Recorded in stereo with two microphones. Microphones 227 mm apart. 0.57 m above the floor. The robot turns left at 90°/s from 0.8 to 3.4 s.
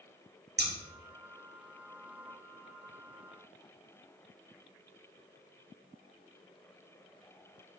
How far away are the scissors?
About 0.8 m.